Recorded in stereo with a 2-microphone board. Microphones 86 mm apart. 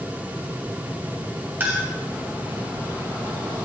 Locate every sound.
1.6 s a clink: 20° right (ahead or behind), 1.9 m